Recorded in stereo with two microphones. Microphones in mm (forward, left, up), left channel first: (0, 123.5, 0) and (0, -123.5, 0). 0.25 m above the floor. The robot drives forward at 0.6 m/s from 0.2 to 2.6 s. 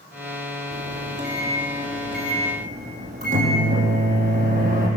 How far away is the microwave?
About 5.5 m.